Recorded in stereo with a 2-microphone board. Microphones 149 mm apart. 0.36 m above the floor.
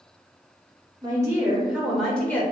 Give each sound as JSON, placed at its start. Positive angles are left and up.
{"t": 1.0, "sound": "a woman speaking", "side_deg": -25, "distance_m": 0.9}